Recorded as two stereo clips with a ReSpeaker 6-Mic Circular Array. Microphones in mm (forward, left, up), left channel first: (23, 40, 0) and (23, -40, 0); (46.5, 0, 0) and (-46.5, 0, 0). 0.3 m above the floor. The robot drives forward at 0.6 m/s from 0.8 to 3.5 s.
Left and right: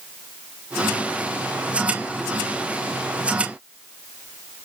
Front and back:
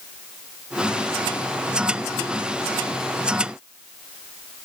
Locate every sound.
Only background noise.